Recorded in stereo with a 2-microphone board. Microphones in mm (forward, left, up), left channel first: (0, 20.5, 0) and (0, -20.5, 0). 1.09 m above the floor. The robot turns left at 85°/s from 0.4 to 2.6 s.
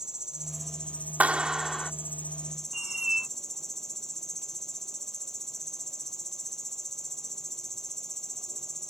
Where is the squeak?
15° right (ahead or behind).